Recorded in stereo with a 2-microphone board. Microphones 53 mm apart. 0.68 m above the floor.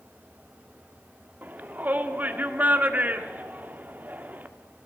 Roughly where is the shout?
Right.